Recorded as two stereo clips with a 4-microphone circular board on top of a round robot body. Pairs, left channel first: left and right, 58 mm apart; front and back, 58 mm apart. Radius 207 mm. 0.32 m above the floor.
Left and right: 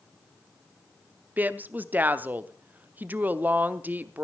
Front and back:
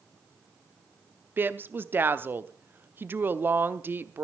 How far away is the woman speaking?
About 1.2 m.